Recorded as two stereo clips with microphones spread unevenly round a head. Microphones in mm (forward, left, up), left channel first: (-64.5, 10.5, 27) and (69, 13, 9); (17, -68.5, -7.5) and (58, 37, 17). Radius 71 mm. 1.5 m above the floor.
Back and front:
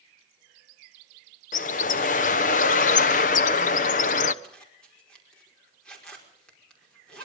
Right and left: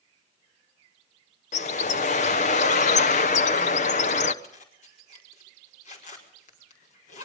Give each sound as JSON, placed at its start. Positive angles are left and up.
{"t": 1.5, "sound": "a bird", "azimuth_deg": -140, "distance_m": 1.0}
{"t": 4.4, "sound": "a zipper", "azimuth_deg": -95, "distance_m": 5.0}